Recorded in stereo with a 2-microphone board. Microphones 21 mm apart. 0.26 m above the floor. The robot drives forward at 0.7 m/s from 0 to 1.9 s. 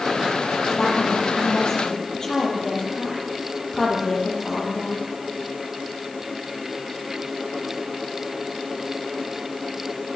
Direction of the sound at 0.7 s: 25° left (ahead or behind).